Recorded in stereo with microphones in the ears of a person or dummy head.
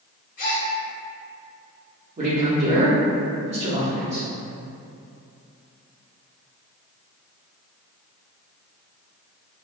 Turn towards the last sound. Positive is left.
turn(degrees=-35)  # may be behind; listen again after turning